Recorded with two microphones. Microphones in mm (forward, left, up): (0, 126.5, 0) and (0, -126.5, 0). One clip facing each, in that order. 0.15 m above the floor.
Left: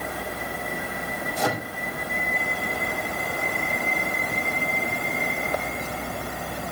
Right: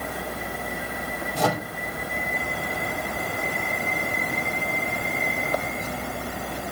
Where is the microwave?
75° right (ahead or behind), 5 m.